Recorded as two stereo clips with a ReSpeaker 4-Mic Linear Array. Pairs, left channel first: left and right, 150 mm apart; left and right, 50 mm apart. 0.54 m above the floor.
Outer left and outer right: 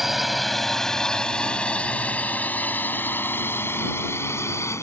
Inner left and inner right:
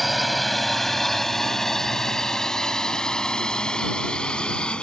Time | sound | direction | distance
0.0 | a drone | centre (ahead or behind) | ?